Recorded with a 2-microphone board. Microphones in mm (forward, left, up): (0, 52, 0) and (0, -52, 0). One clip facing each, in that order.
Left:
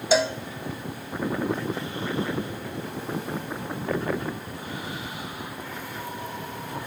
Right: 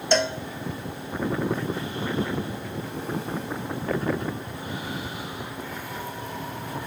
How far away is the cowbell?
About 0.5 m.